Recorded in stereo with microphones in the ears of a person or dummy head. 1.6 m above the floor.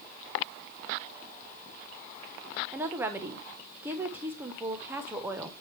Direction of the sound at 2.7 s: 10° right (ahead or behind).